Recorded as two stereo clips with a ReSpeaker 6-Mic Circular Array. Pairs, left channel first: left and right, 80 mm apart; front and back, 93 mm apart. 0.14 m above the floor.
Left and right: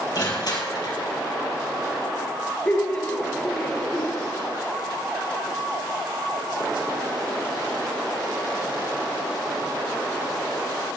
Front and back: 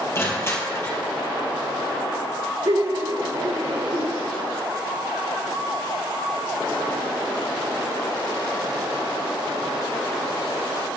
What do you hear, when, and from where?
0.1 s crushing: 60° left, 3.5 m
2.6 s laughter: 155° left, 3.5 m